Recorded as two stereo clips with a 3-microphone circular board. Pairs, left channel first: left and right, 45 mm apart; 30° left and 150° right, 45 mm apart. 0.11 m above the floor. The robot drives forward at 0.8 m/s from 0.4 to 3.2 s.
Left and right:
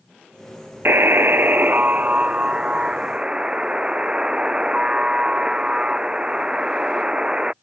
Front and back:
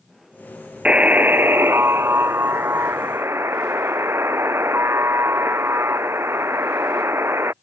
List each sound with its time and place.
0.8 s a buzzer: 90° right; by 7.5 s 160° right